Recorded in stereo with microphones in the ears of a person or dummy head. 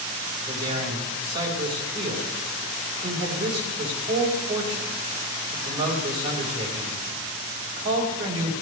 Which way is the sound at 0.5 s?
25° right (ahead or behind).